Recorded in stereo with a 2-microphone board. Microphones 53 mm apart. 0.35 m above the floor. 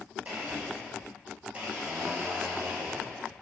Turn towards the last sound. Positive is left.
turn(degrees=-30)  # may be behind; listen again after turning